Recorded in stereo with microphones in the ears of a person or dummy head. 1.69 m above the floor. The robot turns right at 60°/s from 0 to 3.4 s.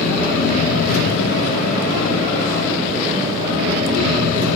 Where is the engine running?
Straight ahead, 1.9 m; by 4.6 s 155° right, 1.9 m.